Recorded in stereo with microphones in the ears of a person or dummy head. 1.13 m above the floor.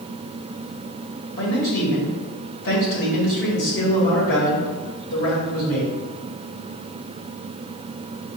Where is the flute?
No flute in this recording.